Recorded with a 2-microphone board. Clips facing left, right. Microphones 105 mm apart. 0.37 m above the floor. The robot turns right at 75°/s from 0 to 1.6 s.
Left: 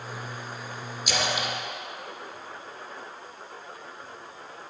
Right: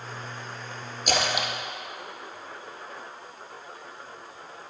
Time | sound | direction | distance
1.1 | a splash | 50° right (ahead or behind) | 1.2 m